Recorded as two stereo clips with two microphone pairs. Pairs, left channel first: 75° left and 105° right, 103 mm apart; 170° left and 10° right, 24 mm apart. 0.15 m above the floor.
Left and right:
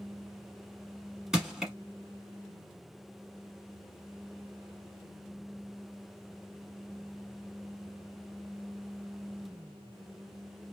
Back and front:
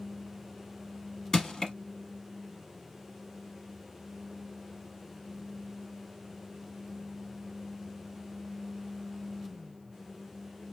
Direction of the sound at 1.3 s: Straight behind.